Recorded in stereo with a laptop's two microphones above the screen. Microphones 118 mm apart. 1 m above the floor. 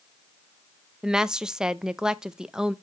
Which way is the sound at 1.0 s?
5° right (ahead or behind).